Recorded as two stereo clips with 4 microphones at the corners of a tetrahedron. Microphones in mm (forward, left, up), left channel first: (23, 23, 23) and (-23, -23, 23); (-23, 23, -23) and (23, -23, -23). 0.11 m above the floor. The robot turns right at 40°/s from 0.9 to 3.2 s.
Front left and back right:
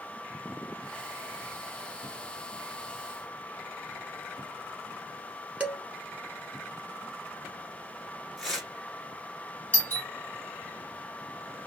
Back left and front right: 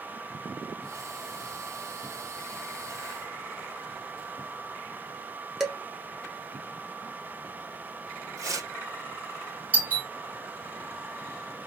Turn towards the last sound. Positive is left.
turn(degrees=5)